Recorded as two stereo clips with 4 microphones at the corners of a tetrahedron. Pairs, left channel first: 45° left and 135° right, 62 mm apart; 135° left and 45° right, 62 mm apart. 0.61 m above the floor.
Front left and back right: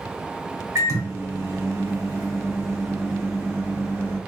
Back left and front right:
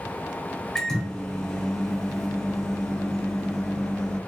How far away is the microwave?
About 1.5 m.